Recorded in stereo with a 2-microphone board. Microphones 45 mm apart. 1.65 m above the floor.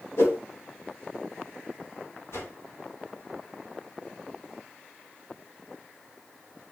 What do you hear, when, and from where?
0.2 s a whoosh: 75° left (ahead or behind), 2.5 m
2.3 s a whoosh: 75° left (ahead or behind), 4 m